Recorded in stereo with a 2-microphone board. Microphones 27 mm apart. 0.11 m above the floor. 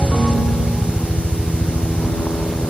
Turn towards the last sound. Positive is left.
turn(degrees=65)  # may be behind; listen again after turning